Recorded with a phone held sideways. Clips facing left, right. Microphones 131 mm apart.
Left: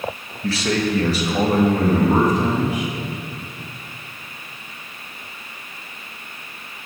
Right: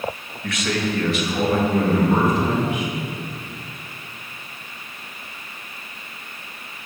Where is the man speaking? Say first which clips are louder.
Left 3 dB; 30° left (ahead or behind), 0.9 m; by 2.9 s 40° left (ahead or behind), 2.5 m.